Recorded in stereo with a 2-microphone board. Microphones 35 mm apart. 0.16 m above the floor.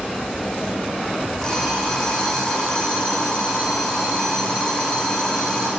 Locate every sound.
1.4 s an alarm clock: 20° left (ahead or behind), 4.5 m